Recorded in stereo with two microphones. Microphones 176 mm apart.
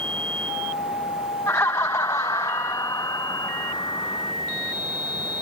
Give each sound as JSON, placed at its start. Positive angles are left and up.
{"t": 1.5, "sound": "laughter", "side_deg": 15}